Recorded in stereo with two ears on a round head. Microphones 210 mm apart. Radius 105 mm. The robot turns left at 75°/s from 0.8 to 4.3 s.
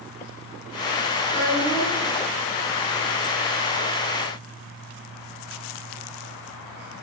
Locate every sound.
1.2 s a child speaking: 20° left, 8 m; by 2.1 s 45° right, 8 m